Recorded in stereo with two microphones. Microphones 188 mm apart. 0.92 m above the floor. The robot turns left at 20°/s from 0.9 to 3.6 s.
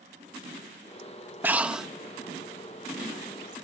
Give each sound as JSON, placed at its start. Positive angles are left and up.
{"t": 1.4, "sound": "breathing", "side_deg": -10}